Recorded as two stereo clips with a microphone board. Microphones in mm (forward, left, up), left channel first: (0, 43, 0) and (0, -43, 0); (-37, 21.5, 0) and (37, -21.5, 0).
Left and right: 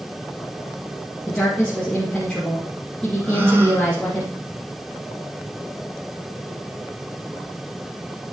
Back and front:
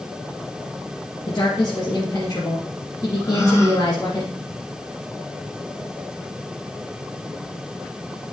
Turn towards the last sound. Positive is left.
turn(degrees=-155)